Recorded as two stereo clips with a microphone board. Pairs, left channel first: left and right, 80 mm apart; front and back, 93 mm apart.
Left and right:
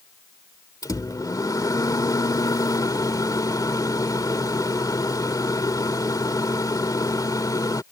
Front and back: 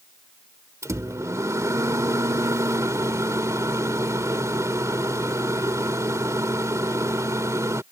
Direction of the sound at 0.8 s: 125° left.